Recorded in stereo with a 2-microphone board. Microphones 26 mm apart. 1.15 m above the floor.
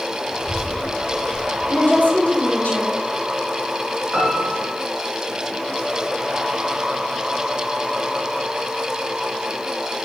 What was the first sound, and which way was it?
A child speaking, 35° left (ahead or behind).